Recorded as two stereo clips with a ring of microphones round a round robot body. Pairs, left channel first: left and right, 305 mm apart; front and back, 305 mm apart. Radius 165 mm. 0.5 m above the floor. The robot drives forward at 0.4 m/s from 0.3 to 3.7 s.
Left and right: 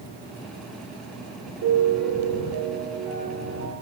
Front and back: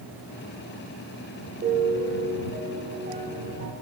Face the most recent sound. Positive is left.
turn(degrees=-130)